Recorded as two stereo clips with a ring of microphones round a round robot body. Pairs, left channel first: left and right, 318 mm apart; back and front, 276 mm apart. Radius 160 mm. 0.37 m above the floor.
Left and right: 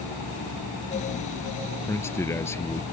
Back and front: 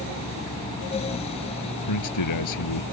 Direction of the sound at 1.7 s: 170° left.